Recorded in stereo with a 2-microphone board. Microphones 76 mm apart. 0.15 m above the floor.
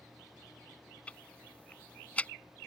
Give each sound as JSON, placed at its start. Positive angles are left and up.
{"t": 1.1, "sound": "ticking", "side_deg": 20}